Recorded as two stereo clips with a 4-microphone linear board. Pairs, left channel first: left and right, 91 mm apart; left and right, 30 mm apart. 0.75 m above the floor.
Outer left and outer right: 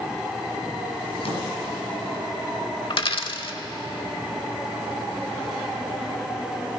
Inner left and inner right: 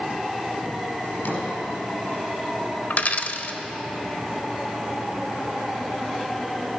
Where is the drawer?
85° left, 4 m.